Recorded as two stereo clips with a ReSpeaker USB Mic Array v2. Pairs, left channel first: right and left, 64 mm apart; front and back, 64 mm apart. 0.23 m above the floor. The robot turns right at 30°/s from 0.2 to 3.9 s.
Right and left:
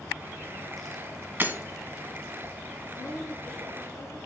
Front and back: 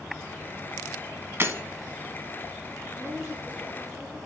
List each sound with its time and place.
1.4 s breaking glass: 140° left, 0.8 m; by 1.6 s 145° left, 0.8 m
3.0 s a woman speaking: 135° right, 3.5 m; by 4.2 s 105° right, 3.5 m